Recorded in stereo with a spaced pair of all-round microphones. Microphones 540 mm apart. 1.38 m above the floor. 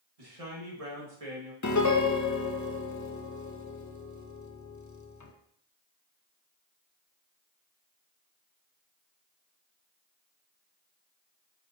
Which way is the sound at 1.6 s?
30° left (ahead or behind).